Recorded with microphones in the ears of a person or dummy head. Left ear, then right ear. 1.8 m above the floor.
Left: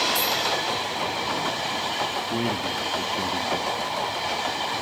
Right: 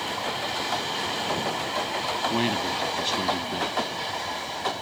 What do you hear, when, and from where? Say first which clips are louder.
2.3 s a man speaking: right 1 dB; 50° right (ahead or behind)